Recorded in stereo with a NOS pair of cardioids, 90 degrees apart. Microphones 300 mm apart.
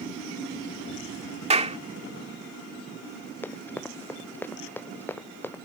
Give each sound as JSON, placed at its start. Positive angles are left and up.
{"t": 1.5, "sound": "a clap", "azimuth_deg": -20}
{"t": 3.4, "sound": "running footsteps", "azimuth_deg": 5}